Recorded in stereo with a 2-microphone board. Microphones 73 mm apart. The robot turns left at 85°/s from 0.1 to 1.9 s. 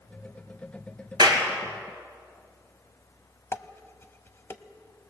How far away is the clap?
About 3 m.